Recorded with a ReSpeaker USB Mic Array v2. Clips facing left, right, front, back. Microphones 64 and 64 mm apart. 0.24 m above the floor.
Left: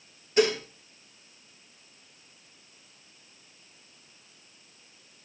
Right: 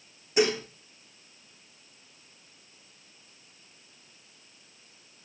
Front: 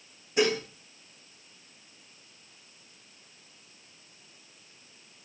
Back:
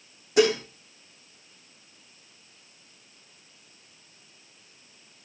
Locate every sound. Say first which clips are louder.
0.4 s dishes clattering: left 1 dB, back 5 dB; 170° right, 8.5 m